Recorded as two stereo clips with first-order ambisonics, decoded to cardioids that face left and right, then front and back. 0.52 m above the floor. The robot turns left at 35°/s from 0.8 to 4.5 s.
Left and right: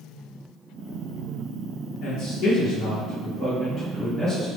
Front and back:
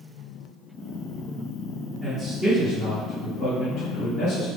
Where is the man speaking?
105° left, 1.5 m; by 4.5 s 20° left, 1.5 m.